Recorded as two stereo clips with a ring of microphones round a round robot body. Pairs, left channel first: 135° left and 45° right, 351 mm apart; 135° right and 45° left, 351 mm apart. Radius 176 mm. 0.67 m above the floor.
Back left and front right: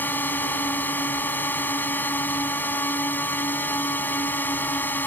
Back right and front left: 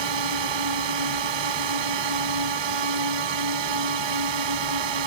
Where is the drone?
50° left.